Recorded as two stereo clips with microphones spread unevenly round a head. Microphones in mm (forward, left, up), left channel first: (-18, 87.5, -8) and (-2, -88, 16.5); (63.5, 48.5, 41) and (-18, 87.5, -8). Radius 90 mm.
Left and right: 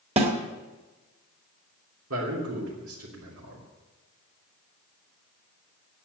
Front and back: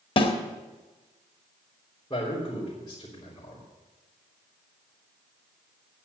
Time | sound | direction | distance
0.2 | a snare drum | 30° right | 1.6 m
2.1 | a man speaking | 90° right | 3.5 m